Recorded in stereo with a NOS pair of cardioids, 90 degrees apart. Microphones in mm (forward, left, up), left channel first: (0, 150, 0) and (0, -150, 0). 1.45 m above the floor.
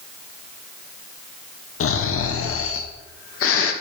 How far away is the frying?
No frying in this recording.